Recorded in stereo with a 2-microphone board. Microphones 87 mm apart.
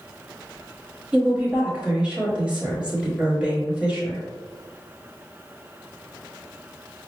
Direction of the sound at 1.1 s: 15° right (ahead or behind).